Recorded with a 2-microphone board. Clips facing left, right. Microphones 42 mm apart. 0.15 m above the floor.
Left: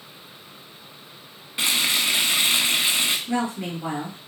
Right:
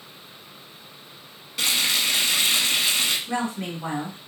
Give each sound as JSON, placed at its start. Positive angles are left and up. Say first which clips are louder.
{"t": 1.6, "sound": "frying", "louder": "left 1 dB", "side_deg": 20, "distance_m": 0.5}
{"t": 3.3, "sound": "a woman speaking", "louder": "left 2 dB", "side_deg": -20, "distance_m": 1.6}